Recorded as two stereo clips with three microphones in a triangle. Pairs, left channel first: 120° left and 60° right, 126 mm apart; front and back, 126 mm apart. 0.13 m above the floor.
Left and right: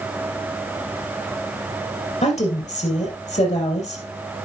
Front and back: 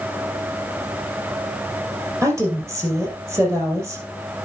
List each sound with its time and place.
2.2 s a woman speaking: 115° left, 4 m